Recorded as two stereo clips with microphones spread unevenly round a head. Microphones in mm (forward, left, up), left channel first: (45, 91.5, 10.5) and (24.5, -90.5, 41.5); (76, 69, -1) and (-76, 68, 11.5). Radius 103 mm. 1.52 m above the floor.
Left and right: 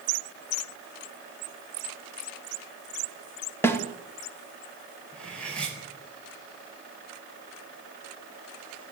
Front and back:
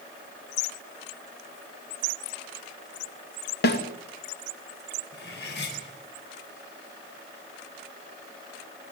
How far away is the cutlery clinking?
About 7 m.